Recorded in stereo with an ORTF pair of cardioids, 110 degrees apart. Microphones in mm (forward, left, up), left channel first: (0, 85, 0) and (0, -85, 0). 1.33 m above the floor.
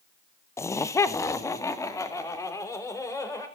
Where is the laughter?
15° left, 0.7 m; by 3.5 s 20° left, 4.5 m.